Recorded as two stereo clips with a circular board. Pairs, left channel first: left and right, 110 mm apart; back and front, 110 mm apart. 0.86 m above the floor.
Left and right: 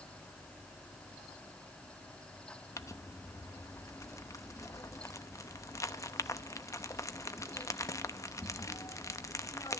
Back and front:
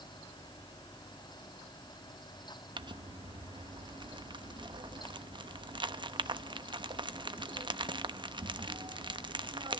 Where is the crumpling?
35° left, 0.9 m.